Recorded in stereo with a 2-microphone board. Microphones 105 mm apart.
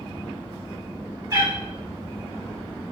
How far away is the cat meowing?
About 1.5 m.